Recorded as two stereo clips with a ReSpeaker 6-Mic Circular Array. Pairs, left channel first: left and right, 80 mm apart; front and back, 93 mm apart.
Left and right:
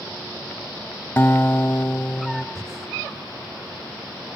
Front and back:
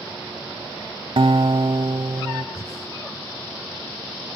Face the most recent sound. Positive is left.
turn(degrees=-40)